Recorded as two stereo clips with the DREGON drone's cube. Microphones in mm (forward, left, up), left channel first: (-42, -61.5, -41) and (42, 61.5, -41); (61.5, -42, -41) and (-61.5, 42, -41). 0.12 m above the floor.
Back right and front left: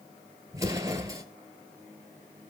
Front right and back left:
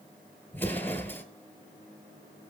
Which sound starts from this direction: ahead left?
An explosion, at 0.5 s.